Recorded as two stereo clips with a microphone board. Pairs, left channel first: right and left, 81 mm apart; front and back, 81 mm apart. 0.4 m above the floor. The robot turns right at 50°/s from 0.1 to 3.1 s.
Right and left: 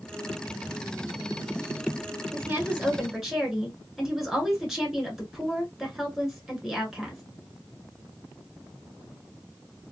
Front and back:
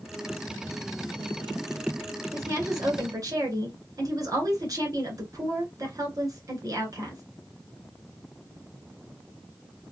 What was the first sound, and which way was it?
A woman speaking, 130° left.